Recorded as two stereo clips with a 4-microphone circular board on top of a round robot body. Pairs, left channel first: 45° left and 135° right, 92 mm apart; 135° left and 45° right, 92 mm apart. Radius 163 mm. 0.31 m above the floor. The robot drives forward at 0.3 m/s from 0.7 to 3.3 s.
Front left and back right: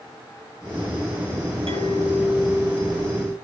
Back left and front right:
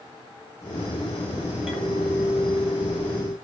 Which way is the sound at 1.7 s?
125° right.